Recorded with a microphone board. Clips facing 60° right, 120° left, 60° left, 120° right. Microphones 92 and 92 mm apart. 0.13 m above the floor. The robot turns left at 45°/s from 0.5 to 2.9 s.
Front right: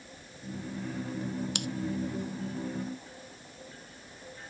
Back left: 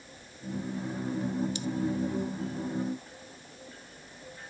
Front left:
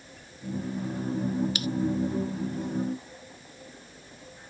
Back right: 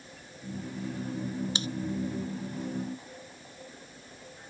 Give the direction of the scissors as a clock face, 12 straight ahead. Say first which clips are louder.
Back left 1 dB, front left 3 dB; 2 o'clock.